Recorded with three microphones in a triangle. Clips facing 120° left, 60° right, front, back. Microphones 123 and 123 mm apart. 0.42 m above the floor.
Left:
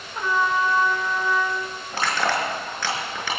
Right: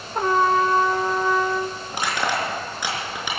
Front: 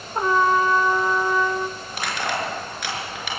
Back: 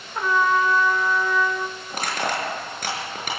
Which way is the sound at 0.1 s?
50° right.